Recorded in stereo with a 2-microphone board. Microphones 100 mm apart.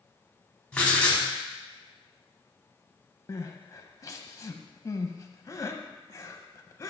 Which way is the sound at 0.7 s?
10° left (ahead or behind).